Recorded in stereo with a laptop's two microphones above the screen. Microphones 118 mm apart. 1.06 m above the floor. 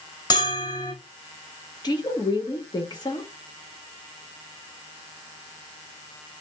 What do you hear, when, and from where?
0.3 s a bell: 35° left (ahead or behind), 1.8 m
1.8 s a woman speaking: 40° left (ahead or behind), 1.7 m